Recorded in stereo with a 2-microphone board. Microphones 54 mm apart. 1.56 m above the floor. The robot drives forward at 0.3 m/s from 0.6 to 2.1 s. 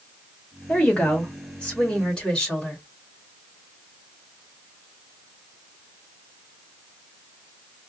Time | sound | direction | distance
0.7 | a woman speaking | 20° left (ahead or behind) | 1.7 m